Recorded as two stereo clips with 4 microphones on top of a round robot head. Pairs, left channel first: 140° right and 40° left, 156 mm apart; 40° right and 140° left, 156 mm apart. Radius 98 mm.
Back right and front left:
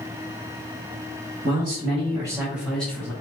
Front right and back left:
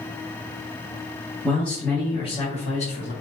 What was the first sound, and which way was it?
A man speaking, 35° left.